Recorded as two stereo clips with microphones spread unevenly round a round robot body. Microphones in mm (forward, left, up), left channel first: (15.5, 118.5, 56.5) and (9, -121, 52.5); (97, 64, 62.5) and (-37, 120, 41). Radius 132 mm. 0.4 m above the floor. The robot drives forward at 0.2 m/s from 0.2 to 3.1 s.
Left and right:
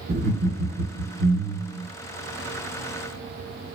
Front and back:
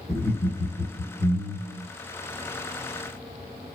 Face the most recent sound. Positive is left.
turn(degrees=-145)